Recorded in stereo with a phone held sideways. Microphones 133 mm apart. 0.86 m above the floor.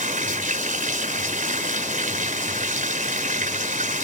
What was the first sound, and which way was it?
Running water, 80° right.